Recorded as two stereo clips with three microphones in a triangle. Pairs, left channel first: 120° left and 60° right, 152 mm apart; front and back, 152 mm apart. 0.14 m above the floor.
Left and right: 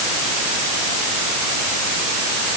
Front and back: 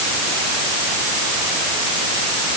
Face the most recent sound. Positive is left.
No sound to turn to.